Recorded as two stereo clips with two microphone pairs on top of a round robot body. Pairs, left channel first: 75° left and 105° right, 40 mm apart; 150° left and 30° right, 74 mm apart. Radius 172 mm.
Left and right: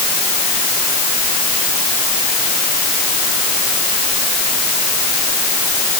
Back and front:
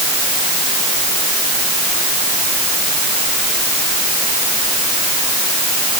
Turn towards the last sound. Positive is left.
No sound to turn to.